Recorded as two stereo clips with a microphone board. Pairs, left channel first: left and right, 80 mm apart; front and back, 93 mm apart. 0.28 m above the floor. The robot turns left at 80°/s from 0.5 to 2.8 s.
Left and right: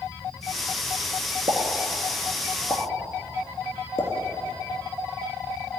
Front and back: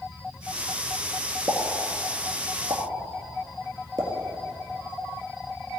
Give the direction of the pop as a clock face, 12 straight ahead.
4 o'clock.